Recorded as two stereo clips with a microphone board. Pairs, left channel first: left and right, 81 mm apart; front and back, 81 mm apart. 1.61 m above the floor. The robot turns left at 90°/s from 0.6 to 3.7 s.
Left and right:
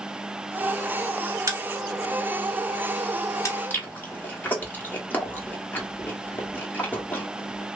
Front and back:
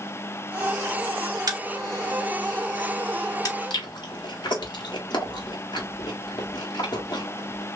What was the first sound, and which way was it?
A crack, 145° right.